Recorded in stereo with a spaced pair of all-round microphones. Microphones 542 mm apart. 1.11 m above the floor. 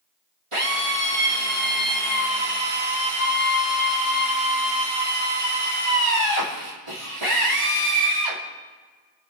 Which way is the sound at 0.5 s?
65° right (ahead or behind).